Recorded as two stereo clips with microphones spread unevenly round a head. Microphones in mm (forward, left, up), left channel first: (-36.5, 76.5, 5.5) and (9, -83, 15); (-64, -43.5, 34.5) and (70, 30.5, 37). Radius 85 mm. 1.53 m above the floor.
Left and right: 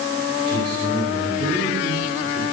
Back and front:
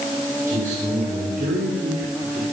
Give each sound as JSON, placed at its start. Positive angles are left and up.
{"t": 0.5, "sound": "a man speaking", "azimuth_deg": -10, "distance_m": 8.0}